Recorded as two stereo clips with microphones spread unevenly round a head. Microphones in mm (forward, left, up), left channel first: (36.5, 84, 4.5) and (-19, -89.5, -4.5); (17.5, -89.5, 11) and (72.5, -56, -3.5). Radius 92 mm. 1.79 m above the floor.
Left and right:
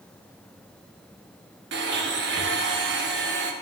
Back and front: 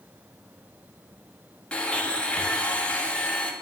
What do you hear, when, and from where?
1.7 s a blender: 80° right, 1.2 m